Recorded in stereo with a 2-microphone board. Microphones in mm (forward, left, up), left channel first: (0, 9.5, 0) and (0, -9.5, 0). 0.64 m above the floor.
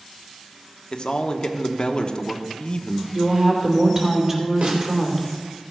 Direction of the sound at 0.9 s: 50° left (ahead or behind).